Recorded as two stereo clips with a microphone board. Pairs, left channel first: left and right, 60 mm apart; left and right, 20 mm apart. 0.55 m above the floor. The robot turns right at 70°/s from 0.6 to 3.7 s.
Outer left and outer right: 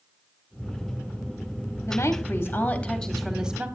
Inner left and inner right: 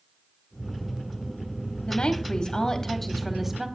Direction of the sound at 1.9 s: 95° left.